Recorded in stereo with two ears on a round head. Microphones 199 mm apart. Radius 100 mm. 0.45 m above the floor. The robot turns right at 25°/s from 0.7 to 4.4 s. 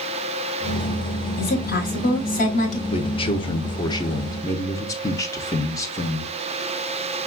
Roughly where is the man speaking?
Left.